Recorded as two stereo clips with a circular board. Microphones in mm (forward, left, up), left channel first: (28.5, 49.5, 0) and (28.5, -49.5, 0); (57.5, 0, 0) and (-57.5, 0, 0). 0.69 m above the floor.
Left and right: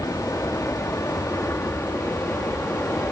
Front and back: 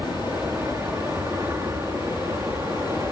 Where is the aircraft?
130° left; by 3.1 s 145° left.